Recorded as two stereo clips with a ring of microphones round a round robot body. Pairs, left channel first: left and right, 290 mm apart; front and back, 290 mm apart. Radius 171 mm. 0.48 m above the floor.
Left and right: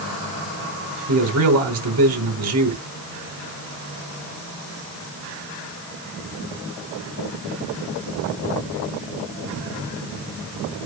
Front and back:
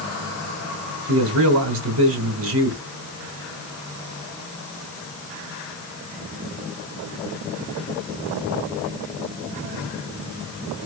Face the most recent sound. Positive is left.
turn(degrees=-130)